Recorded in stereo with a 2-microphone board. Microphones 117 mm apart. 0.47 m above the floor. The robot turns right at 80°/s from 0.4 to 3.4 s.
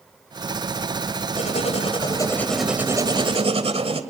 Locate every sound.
1.4 s writing: 80° left, 1.8 m; by 4.0 s 115° right, 1.8 m